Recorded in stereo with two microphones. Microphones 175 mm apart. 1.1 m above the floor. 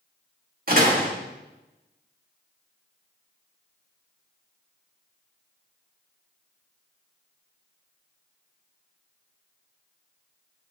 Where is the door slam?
55° right (ahead or behind), 1.8 m.